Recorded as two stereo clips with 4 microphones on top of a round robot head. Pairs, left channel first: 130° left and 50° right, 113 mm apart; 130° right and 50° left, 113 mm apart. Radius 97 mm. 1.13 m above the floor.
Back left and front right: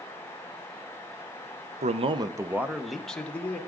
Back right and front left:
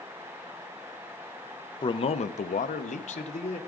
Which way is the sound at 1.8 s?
75° right.